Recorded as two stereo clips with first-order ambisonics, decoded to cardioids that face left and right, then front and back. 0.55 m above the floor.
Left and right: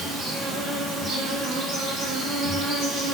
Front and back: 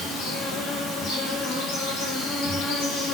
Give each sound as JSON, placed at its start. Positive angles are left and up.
{"t": 0.0, "sound": "an insect", "azimuth_deg": -25, "distance_m": 0.7}